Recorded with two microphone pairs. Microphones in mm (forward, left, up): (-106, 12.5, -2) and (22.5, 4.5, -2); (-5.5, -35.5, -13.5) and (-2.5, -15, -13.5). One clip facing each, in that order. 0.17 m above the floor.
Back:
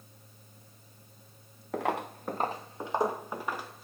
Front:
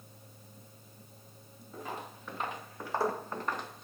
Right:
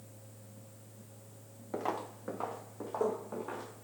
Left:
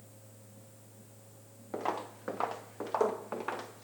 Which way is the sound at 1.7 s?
170° left.